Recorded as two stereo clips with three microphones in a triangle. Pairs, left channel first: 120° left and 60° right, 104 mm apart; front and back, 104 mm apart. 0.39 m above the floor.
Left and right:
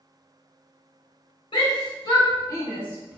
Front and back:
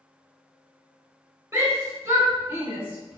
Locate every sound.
1.5 s a shout: 120° left, 1.4 m; by 3.2 s 155° right, 0.9 m